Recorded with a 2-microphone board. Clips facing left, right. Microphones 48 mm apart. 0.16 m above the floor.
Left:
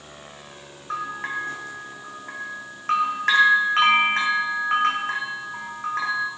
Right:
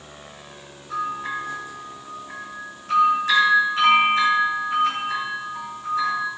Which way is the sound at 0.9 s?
55° left (ahead or behind).